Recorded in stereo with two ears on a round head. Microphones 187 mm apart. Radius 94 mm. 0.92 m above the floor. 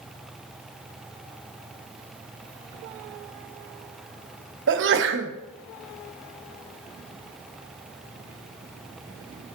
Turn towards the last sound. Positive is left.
turn(degrees=-60)  # may be behind; listen again after turning